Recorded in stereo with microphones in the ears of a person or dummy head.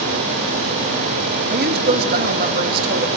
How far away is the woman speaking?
About 2 m.